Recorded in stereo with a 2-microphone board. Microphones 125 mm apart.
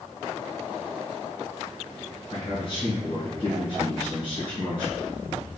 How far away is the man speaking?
About 1.8 m.